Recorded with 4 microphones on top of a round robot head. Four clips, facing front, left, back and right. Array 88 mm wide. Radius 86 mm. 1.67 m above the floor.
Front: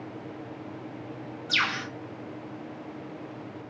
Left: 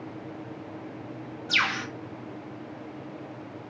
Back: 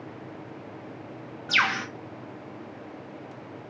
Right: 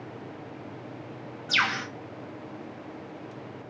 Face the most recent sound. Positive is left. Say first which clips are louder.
# right 1 dB, back 4 dB
turn(degrees=-160)